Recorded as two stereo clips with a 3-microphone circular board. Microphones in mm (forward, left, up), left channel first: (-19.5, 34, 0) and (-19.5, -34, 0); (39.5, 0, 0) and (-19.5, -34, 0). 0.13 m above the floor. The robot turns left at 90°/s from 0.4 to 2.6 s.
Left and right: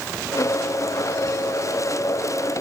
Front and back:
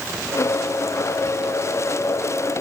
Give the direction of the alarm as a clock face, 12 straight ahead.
I don't hear an alarm.